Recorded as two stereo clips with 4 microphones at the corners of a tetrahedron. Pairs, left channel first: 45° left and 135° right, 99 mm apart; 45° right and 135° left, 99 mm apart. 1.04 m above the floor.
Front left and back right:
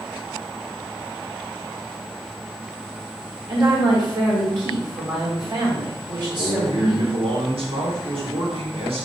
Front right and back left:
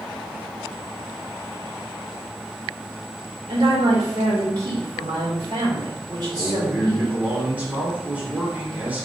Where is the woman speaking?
Straight behind, 2.5 m.